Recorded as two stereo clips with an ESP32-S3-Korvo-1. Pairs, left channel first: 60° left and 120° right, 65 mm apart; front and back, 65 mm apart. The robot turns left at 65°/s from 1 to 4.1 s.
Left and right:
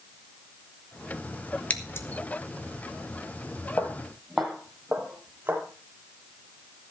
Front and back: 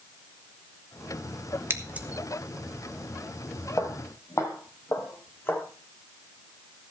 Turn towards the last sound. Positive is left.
turn(degrees=-55)